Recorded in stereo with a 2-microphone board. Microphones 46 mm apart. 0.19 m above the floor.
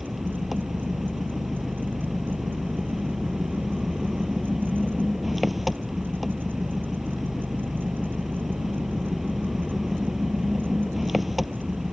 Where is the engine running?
5° right (ahead or behind).